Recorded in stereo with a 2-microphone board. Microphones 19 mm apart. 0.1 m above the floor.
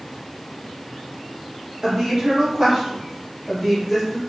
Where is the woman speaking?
45° right (ahead or behind), 1.8 m; by 4.2 s centre (ahead or behind), 1.9 m.